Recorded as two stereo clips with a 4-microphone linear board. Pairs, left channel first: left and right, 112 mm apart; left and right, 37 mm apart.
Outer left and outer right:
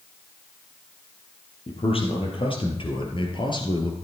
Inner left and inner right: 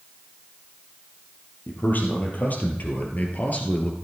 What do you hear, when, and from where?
1.7 s a man speaking: 60° left (ahead or behind), 3 m; by 4.0 s 45° left (ahead or behind), 2 m